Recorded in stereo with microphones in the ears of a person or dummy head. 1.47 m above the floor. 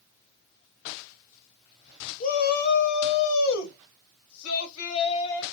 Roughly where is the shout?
Left.